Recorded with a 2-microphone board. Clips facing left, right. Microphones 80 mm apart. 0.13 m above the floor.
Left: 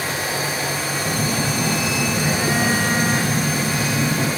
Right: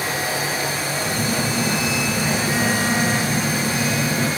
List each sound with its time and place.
1.0 s a phone buzzing: 20° left (ahead or behind), 1.3 m